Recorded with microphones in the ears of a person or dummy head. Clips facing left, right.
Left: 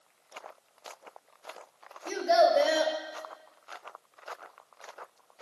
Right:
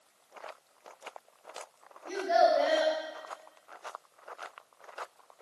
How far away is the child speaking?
About 1.1 m.